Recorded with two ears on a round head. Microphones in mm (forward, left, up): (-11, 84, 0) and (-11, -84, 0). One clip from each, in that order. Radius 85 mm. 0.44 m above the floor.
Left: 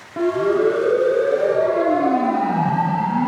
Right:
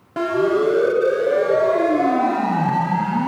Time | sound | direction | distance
0.2 | a siren | 40° right (ahead or behind) | 3 m